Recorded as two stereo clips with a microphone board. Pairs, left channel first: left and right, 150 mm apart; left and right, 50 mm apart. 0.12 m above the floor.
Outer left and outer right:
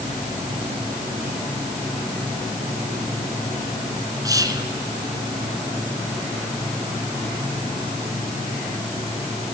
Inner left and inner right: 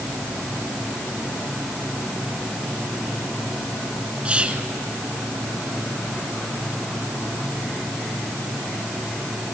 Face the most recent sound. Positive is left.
turn(degrees=-25)  # may be behind; listen again after turning